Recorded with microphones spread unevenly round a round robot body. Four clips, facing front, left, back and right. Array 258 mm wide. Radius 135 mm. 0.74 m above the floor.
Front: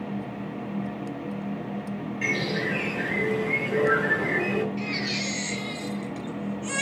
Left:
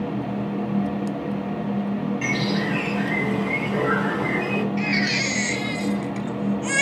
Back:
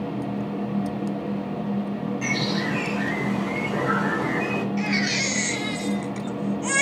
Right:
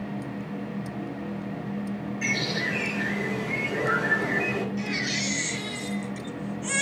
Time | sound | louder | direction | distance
2.2 | a bird | left 6 dB, even | 140° left | 7 m
4.8 | a baby crying | left 6 dB, back 5 dB | 150° left | 3 m